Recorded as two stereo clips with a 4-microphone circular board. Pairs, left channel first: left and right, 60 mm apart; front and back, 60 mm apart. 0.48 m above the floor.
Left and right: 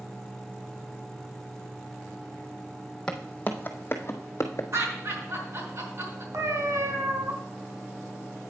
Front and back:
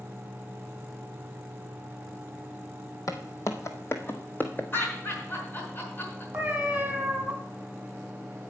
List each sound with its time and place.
3.1 s footsteps: 15° left, 1.2 m; by 4.6 s 65° left, 1.4 m
4.7 s laughter: 55° right, 5 m
6.3 s a cat meowing: 110° right, 1.8 m